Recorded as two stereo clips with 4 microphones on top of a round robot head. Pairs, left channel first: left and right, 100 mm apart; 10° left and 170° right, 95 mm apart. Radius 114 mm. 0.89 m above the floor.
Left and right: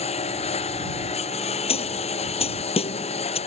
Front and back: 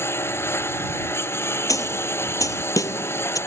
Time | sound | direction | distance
0.0 | a lawn mower | 75° left | ?
1.7 | a snare drum | 65° left | ?